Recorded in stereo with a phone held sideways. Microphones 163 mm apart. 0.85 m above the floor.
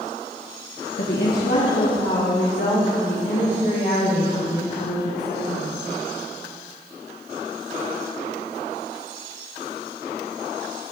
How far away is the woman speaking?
About 1.1 m.